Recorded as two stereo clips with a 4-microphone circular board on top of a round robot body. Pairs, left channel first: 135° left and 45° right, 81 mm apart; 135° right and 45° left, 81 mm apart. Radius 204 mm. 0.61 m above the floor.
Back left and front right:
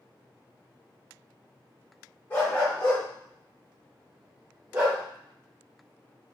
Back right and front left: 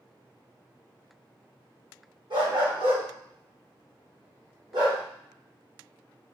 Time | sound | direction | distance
2.3 | a dog barking | 70° left | 1.6 m